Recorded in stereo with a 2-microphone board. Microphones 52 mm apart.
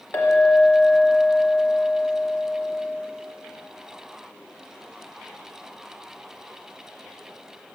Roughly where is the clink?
Left.